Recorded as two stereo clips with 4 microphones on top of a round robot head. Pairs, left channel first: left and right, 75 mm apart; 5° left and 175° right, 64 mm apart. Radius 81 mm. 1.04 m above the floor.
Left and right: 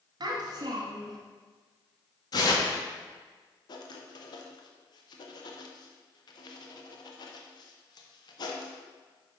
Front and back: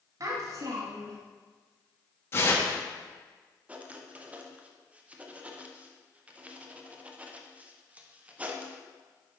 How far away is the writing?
About 0.8 m.